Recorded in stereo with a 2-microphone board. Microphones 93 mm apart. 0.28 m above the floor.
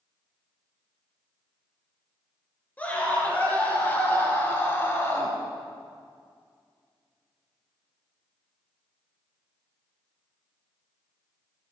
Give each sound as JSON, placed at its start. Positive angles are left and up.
{"t": 2.8, "sound": "a scream", "side_deg": 15, "distance_m": 4.5}